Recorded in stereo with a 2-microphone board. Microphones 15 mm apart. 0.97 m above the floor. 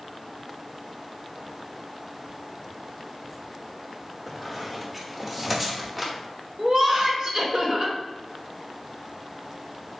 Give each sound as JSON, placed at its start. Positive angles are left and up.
{"t": 4.3, "sound": "a squeak", "side_deg": 0, "distance_m": 0.7}
{"t": 6.6, "sound": "laughter", "side_deg": -45, "distance_m": 1.1}